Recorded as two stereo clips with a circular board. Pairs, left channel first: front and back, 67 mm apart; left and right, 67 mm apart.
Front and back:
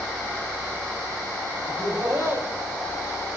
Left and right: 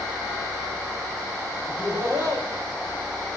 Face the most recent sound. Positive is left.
turn(degrees=-125)